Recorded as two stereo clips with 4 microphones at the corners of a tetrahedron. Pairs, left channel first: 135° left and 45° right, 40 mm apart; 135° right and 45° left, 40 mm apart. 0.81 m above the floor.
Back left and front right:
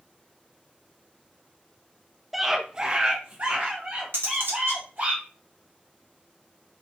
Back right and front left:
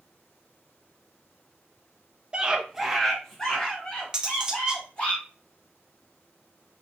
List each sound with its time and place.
2.3 s a scream: 35° left, 0.6 m; by 5.1 s 80° right, 1.6 m
4.1 s cutlery clinking: 25° right, 0.6 m